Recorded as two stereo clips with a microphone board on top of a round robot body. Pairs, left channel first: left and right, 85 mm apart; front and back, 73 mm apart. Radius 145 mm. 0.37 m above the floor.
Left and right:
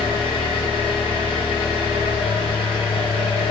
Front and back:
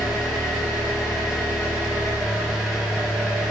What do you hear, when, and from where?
0.0 s an engine running: 95° left, 0.9 m